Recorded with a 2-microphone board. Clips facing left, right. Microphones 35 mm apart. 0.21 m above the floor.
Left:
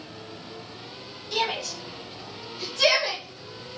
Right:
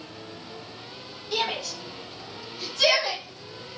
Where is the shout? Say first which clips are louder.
Left 1 dB; 10° right (ahead or behind), 1.2 m; by 3.2 s 5° left (ahead or behind), 1.7 m.